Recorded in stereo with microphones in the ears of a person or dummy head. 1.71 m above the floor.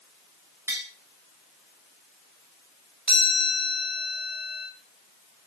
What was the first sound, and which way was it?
Tapping, 10° right (ahead or behind).